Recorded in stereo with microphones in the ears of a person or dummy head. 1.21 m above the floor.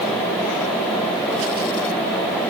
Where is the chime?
No chime in this recording.